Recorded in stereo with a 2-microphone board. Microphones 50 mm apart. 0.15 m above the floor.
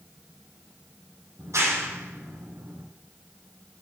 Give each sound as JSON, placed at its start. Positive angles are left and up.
{"t": 1.4, "sound": "a clap", "side_deg": -80, "distance_m": 5.0}